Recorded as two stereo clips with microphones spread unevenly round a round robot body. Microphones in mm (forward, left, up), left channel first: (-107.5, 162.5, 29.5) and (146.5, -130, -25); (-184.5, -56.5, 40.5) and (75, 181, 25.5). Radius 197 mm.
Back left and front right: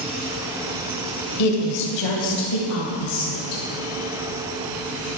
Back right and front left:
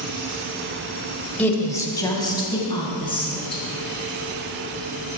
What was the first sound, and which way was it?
A woman speaking, 135° left.